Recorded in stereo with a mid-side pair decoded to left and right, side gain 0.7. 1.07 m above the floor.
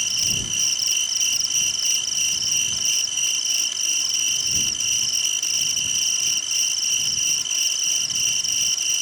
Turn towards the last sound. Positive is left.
turn(degrees=0)